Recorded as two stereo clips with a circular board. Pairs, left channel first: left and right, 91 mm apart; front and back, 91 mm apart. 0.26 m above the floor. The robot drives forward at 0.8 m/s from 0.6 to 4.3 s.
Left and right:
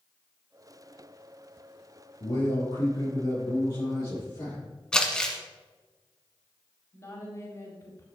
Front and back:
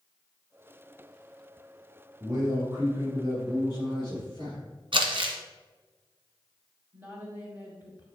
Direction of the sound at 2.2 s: 120° left.